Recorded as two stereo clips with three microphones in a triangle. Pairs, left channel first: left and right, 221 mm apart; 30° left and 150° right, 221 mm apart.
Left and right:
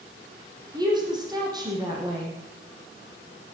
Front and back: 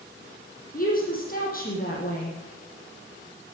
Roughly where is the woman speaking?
Ahead.